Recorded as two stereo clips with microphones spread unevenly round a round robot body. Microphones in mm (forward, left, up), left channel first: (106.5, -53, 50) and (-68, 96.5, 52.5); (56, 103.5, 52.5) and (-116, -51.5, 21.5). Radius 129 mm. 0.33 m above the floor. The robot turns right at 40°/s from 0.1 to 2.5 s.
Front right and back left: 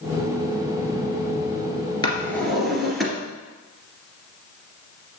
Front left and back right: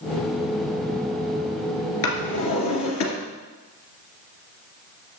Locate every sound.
2.0 s a drawer: 30° left, 2.5 m; by 3.1 s 50° left, 2.5 m